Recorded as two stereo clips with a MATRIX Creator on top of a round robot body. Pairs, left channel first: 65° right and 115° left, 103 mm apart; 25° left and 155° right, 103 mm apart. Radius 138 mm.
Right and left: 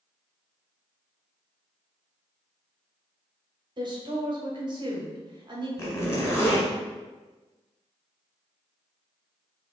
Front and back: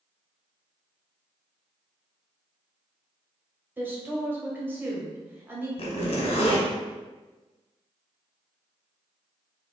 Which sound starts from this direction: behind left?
A woman speaking, at 3.8 s.